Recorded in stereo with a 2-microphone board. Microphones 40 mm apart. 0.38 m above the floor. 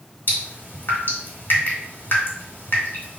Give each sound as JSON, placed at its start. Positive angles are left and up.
{"t": 0.3, "sound": "dripping", "side_deg": 55, "distance_m": 1.4}